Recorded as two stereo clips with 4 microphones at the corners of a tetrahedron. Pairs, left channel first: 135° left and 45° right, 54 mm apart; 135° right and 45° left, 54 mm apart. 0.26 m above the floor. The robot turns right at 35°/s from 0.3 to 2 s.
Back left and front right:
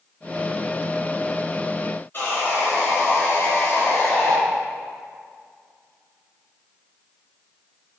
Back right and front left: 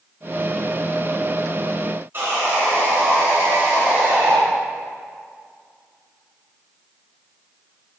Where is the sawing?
90° left, 3.5 m.